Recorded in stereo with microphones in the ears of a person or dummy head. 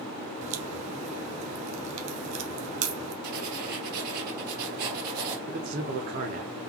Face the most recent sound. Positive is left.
turn(degrees=-40)  # may be behind; listen again after turning